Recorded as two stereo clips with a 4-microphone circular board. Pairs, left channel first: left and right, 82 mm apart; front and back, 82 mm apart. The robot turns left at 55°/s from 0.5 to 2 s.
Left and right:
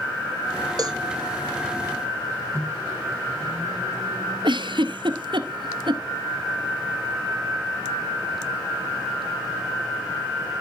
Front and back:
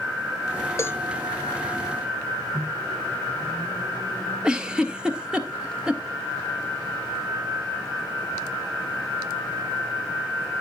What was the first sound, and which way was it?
A cowbell, 55° right.